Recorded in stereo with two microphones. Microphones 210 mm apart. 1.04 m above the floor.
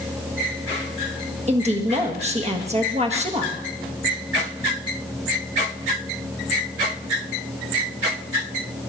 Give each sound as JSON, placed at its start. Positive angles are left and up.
{"t": 1.5, "sound": "a woman speaking", "side_deg": -30, "distance_m": 1.5}